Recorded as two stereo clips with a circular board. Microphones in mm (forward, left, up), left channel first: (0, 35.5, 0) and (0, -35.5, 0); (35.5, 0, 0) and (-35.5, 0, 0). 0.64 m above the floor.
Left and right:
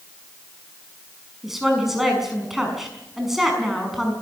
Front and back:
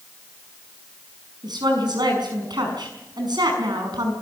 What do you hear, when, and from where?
1.4 s a woman speaking: 175° right, 6 m